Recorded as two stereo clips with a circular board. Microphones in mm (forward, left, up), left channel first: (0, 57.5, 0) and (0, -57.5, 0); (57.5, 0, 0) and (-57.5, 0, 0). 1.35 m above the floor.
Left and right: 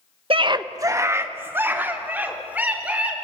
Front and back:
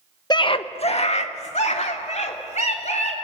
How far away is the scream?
About 0.9 m.